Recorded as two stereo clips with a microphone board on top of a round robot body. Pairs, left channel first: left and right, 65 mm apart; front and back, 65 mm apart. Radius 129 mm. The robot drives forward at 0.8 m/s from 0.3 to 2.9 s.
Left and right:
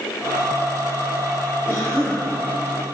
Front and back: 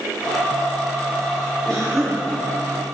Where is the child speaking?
No child speaking in this recording.